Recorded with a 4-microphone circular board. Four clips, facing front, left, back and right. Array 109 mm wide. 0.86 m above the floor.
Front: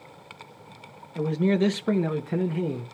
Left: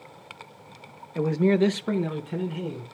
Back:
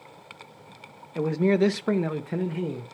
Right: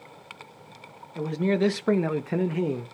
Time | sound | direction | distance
1.1 | a man speaking | 135° left | 0.7 m